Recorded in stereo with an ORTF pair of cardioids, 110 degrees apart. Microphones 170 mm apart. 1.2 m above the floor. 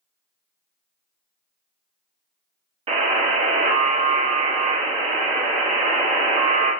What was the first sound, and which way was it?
A buzzer, 35° right.